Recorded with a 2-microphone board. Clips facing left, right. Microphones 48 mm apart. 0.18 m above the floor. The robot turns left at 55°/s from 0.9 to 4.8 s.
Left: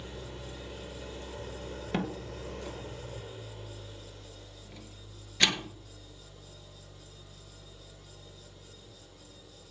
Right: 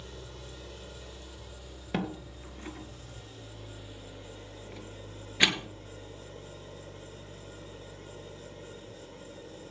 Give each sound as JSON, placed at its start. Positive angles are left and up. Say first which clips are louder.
{"t": 0.0, "sound": "an engine running", "louder": "left 3 dB", "azimuth_deg": 150, "distance_m": 1.5}
{"t": 1.9, "sound": "a door slam", "louder": "right 1 dB", "side_deg": -5, "distance_m": 1.9}